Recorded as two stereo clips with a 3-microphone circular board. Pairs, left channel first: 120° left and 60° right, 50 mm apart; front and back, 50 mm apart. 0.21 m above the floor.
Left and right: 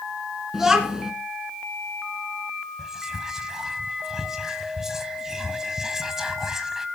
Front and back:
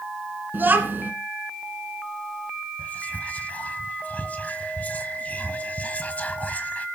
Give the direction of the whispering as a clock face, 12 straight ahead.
12 o'clock.